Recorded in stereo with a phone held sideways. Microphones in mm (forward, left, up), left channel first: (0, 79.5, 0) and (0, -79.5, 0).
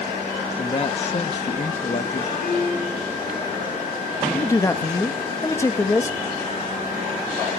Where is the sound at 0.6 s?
40° left (ahead or behind), 0.8 m.